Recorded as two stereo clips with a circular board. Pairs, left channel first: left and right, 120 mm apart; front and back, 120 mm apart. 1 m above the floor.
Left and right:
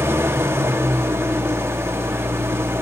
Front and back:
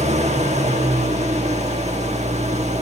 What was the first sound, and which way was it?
An engine running, 160° right.